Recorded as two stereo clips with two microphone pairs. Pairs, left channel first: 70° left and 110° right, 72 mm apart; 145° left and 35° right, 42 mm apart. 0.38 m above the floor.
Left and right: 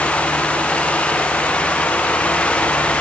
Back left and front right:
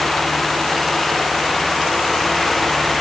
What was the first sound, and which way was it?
Only background noise.